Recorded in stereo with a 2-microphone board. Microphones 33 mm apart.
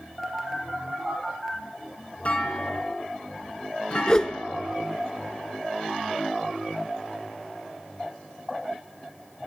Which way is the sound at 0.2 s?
Centre (ahead or behind).